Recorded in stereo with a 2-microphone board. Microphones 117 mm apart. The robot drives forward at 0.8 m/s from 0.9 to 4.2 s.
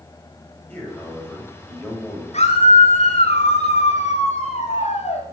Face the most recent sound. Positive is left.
turn(degrees=80)